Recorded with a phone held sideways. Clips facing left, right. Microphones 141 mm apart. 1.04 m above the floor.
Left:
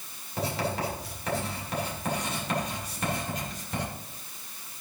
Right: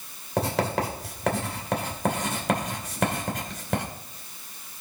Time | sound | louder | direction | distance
0.4 | writing | right 5 dB | 85° right | 2.5 m